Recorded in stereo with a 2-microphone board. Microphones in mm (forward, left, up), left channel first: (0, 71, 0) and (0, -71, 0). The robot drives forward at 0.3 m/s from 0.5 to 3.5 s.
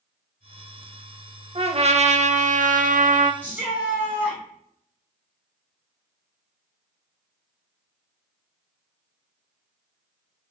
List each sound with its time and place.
1.6 s a trumpet: 45° right (ahead or behind), 0.6 m; by 3.3 s 60° right (ahead or behind), 0.5 m
3.4 s a shout: 10° right (ahead or behind), 2 m